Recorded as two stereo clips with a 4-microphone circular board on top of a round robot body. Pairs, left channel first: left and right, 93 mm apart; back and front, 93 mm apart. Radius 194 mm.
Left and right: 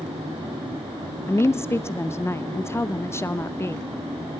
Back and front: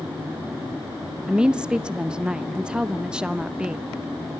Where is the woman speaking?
70° left, 1.1 m.